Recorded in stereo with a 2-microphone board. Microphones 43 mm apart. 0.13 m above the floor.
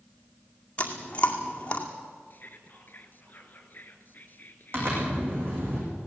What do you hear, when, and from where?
0.8 s chewing: 30° left (ahead or behind), 2 m
2.3 s whispering: 45° left (ahead or behind), 2.5 m
4.7 s a zipper: 50° right (ahead or behind), 8.5 m